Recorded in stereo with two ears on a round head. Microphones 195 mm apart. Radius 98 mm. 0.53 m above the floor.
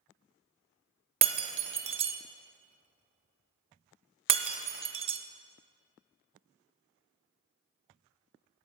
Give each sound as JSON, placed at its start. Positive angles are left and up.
{"t": 1.2, "sound": "breaking glass", "side_deg": -25, "distance_m": 0.5}